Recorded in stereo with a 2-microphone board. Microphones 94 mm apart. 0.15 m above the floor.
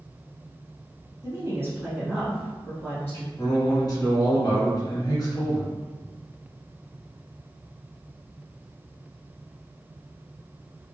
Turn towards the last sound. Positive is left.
turn(degrees=40)  # may be behind; listen again after turning